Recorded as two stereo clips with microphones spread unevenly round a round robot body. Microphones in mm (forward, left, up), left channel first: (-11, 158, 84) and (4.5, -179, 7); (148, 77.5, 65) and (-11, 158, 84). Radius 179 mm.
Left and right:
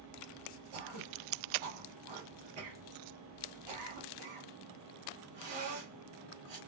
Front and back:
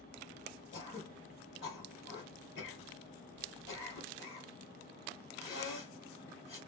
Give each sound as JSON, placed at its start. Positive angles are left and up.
{"t": 0.7, "sound": "throat clearing", "azimuth_deg": -70, "distance_m": 2.0}